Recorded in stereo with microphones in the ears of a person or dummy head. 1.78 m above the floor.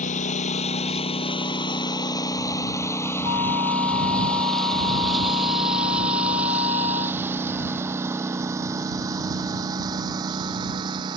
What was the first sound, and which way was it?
A lawn mower, 35° left (ahead or behind).